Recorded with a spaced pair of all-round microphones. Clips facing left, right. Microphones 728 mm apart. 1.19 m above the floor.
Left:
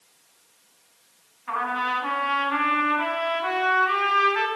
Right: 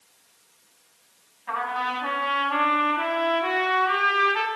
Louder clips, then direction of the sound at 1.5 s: Left 1 dB; 60° right (ahead or behind).